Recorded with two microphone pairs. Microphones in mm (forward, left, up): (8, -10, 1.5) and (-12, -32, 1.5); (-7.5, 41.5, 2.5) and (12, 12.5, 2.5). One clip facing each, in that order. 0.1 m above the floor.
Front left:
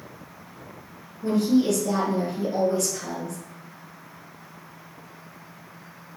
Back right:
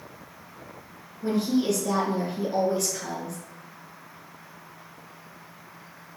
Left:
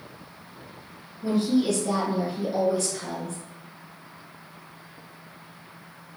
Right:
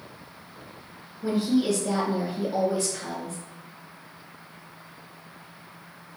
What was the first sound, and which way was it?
A woman speaking, 115° right.